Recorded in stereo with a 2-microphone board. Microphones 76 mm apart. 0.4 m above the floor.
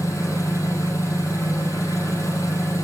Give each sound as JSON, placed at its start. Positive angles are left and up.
{"t": 0.0, "sound": "an engine running", "side_deg": 40, "distance_m": 5.0}